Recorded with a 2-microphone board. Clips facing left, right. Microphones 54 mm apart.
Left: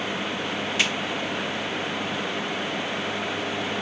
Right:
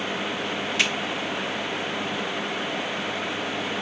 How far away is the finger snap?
About 2.5 m.